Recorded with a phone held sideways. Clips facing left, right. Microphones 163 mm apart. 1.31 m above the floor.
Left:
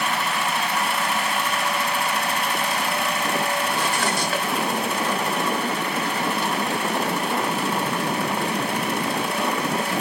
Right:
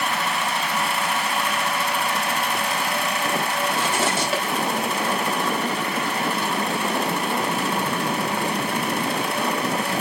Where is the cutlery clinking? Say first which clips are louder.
Right 1 dB; 25° right (ahead or behind), 5 m.